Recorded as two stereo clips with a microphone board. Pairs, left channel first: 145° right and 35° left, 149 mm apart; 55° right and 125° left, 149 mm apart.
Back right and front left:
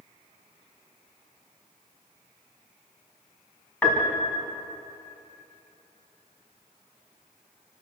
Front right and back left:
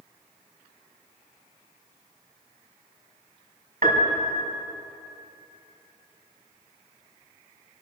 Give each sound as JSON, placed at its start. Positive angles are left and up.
{"t": 3.8, "sound": "a piano", "azimuth_deg": 135, "distance_m": 3.5}